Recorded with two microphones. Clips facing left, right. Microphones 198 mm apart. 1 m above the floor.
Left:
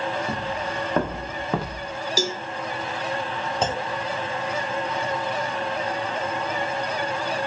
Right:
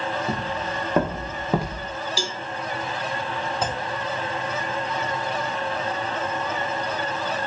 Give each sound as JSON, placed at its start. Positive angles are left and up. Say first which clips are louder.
{"t": 0.3, "sound": "footsteps", "louder": "even", "side_deg": -10, "distance_m": 5.5}
{"t": 2.2, "sound": "a cowbell", "louder": "left 5 dB", "side_deg": 45, "distance_m": 0.8}
{"t": 3.6, "sound": "a clunk", "louder": "left 2 dB", "side_deg": 25, "distance_m": 1.0}